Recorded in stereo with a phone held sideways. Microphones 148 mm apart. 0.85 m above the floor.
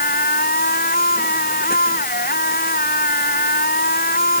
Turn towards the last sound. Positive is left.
turn(degrees=85)